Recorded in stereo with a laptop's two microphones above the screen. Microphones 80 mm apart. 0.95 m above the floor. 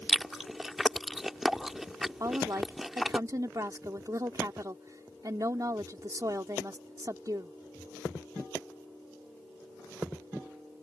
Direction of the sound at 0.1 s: Centre (ahead or behind).